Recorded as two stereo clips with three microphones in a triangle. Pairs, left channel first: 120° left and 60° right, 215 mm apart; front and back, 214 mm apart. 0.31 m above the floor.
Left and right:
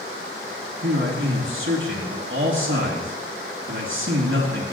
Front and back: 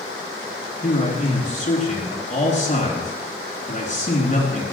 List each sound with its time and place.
0.8 s a man speaking: 50° right, 4 m